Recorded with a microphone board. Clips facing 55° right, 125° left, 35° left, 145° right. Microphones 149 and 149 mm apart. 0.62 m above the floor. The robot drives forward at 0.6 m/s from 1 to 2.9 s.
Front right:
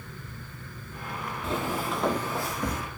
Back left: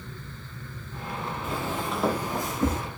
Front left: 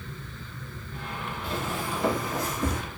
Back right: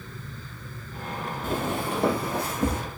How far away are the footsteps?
About 1.2 m.